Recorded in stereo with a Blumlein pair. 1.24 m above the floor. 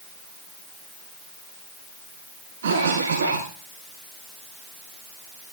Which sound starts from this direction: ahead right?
A cough, at 2.6 s.